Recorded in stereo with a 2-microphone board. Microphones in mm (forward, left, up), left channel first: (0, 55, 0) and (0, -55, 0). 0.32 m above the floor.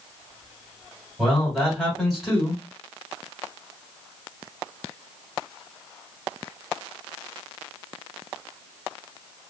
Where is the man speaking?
Centre (ahead or behind), 1.6 m.